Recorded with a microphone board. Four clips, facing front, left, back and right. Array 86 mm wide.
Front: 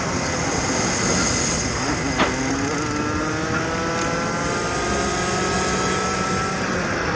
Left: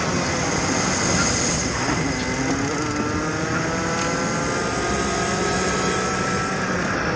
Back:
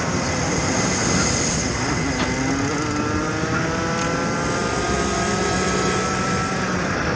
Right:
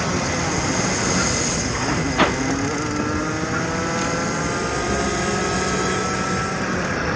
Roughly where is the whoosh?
Ahead right.